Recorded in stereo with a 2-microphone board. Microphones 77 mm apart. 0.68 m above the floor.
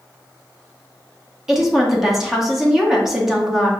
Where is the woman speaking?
5° right (ahead or behind), 0.9 m.